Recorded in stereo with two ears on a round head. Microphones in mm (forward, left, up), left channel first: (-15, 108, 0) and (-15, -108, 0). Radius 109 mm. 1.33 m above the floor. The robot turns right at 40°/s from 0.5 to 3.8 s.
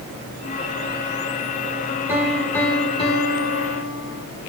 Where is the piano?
10° right, 1.7 m; by 4.2 s 60° left, 1.7 m.